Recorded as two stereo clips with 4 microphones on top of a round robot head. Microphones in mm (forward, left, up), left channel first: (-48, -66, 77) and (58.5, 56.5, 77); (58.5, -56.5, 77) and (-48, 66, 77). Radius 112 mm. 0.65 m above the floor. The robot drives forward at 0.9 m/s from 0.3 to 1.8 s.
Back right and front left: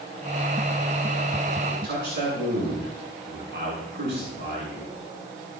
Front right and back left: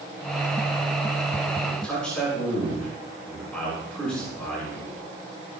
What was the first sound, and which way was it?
A man speaking, 35° left.